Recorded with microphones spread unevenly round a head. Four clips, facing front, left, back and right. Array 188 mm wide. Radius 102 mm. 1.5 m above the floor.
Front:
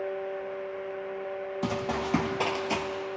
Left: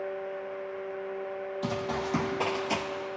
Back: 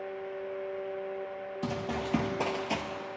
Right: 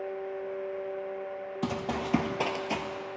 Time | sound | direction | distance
1.6 | running footsteps | 60° right | 2 m